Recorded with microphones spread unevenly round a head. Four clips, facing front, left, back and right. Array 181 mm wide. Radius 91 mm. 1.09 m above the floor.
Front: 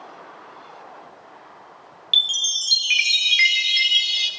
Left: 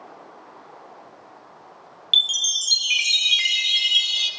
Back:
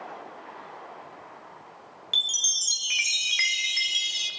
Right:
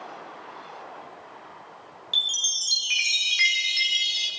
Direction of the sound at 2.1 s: 165° left.